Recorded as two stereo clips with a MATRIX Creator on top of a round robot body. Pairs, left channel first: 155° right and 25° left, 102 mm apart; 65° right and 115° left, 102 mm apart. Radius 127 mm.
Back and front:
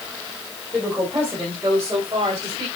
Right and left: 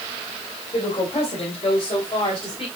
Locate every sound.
0.7 s a woman speaking: 60° right, 4.5 m; by 2.7 s 30° right, 5 m